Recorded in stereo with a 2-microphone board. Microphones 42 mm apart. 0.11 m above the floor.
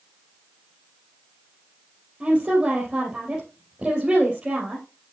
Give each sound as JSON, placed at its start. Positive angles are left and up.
{"t": 2.2, "sound": "a woman speaking", "side_deg": -25, "distance_m": 3.0}